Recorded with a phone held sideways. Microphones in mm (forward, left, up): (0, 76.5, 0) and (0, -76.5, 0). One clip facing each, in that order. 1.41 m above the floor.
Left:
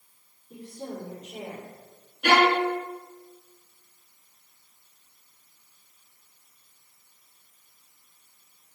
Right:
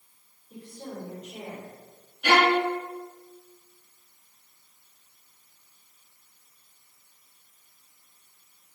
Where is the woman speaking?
40° left (ahead or behind), 5 m; by 1.7 s 35° left (ahead or behind), 6 m.